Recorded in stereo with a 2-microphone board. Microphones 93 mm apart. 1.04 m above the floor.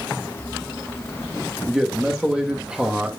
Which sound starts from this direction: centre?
A man speaking, at 1.7 s.